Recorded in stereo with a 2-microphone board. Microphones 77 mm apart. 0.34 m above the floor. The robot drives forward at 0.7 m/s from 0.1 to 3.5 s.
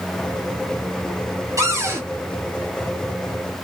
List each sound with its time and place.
1.6 s a cupboard door: 40° right (ahead or behind), 3.5 m; by 2.0 s 35° right (ahead or behind), 4 m